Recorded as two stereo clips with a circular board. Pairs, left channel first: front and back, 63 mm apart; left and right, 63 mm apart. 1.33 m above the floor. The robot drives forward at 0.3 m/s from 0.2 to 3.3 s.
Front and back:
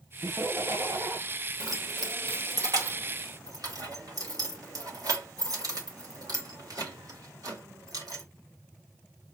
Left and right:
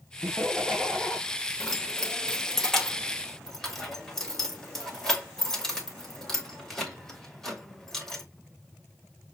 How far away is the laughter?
About 0.9 m.